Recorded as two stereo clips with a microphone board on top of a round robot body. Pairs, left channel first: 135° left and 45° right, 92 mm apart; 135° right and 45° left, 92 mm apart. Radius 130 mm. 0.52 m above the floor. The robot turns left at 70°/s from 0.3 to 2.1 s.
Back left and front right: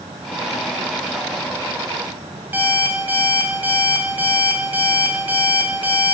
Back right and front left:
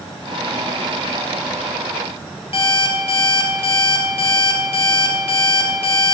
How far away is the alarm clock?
About 1.3 m.